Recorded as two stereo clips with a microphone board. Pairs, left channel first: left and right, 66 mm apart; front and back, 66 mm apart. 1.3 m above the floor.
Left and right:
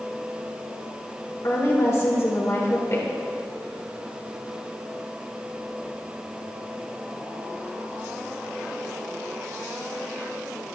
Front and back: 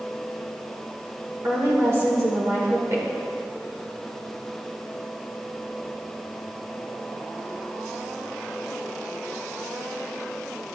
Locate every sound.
1.4 s a woman speaking: 135° left, 2.0 m